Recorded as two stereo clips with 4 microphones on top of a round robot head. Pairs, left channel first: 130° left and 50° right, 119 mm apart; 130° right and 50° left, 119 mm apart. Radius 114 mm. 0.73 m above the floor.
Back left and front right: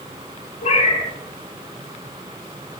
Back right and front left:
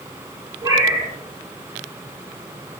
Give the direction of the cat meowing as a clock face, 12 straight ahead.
8 o'clock.